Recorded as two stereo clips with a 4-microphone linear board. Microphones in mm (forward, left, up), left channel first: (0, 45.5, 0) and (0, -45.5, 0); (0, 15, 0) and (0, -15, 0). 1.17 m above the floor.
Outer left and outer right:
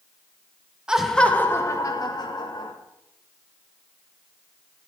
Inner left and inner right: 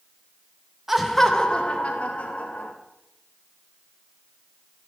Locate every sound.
0.9 s laughter: 10° right (ahead or behind), 1.3 m; by 2.7 s 55° left (ahead or behind), 3 m